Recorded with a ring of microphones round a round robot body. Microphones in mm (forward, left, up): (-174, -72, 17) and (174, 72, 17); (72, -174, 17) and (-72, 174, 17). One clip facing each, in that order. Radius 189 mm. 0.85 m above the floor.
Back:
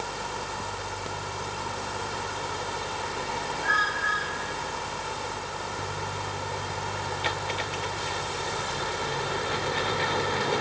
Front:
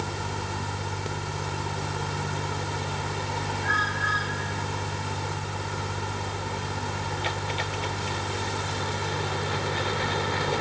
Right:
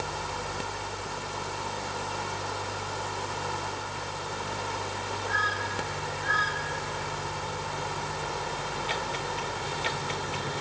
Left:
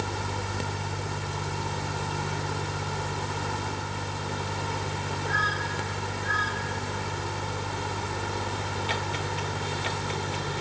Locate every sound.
Only background noise.